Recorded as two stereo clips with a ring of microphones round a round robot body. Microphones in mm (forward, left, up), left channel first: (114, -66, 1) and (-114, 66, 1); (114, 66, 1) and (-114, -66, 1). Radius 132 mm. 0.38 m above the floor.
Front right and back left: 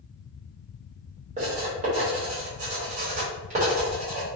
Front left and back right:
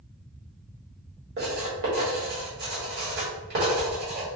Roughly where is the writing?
Behind.